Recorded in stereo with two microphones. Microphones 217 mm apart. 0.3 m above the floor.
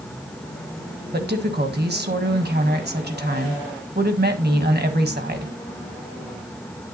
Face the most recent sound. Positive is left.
turn(degrees=-50)  # may be behind; listen again after turning